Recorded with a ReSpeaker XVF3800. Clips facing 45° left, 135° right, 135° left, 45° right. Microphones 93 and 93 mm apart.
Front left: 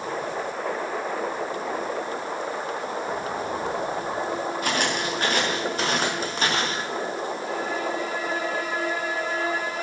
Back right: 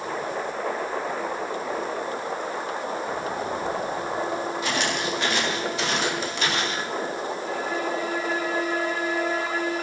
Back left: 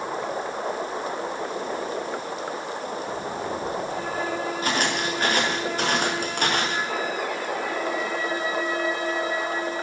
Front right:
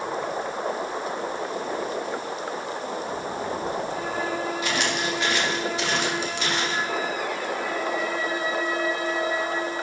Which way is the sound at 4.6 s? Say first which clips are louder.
Front left 1 dB, back left 1 dB; 85° left.